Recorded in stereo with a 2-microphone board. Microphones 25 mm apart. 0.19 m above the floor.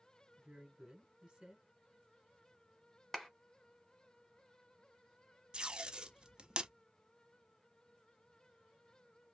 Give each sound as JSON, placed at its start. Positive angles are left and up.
{"t": 0.4, "sound": "a woman speaking", "side_deg": -25, "distance_m": 1.5}
{"t": 3.1, "sound": "a clap", "side_deg": 10, "distance_m": 1.0}
{"t": 5.5, "sound": "tape being pulled", "side_deg": -30, "distance_m": 0.5}